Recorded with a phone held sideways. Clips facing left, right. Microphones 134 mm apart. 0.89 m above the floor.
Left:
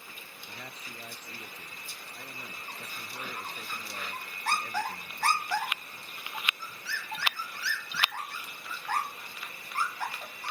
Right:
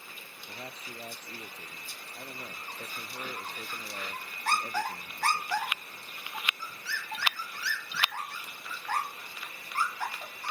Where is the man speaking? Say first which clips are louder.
Right 3 dB; 30° right (ahead or behind).